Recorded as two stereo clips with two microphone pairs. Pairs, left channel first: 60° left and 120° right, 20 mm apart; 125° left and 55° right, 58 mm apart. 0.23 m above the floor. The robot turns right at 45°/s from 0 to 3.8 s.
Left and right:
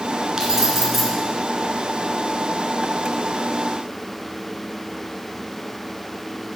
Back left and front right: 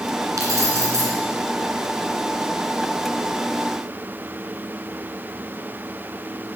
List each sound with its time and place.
0.4 s keys jangling: 65° right, 2 m; by 1.1 s 30° right, 2 m